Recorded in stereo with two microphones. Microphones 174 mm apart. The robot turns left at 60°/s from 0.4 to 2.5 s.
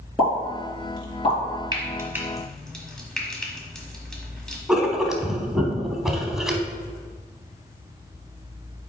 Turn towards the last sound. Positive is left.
turn(degrees=-5)  # may be behind; listen again after turning